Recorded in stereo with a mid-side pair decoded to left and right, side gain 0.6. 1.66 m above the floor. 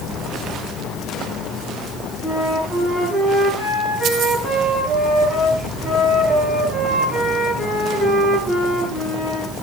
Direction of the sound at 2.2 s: 5° left.